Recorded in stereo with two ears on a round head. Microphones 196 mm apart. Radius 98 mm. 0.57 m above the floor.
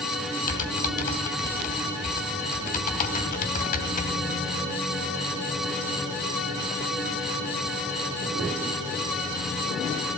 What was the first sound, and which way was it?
Typing on a keyboard, 40° left (ahead or behind).